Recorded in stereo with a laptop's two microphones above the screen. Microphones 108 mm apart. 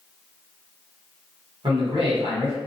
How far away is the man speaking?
About 1.3 m.